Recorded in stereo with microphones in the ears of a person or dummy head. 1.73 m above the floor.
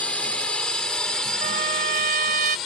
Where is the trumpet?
30° right (ahead or behind).